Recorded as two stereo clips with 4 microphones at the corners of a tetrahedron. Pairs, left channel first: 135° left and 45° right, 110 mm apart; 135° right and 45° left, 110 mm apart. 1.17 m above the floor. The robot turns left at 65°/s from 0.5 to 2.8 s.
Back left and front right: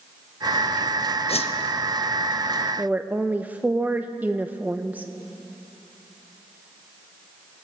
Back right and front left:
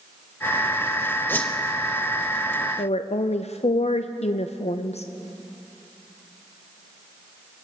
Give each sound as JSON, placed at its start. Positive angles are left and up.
{"t": 1.3, "sound": "a whoosh", "azimuth_deg": 155, "distance_m": 0.8}
{"t": 2.8, "sound": "a woman speaking", "azimuth_deg": -120, "distance_m": 0.5}